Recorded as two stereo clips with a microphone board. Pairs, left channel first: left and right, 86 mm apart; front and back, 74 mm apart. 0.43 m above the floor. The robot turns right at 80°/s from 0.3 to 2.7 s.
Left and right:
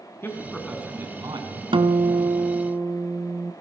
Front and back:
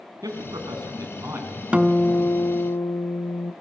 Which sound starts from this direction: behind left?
A man speaking, at 0.2 s.